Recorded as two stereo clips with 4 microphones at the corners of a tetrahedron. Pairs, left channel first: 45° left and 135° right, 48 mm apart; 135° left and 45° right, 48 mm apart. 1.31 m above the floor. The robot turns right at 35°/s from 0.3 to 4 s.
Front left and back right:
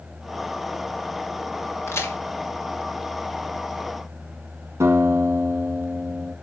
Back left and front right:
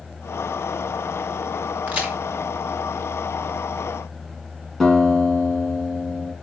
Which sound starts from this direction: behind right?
A guitar, at 4.8 s.